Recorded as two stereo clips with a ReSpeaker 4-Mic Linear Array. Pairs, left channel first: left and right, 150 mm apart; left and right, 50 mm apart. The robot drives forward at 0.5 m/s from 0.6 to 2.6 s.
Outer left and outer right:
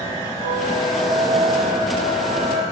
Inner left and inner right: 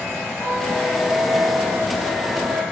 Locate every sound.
0.4 s a squeak: 60° right (ahead or behind), 6.5 m; by 2.6 s 50° right (ahead or behind), 7 m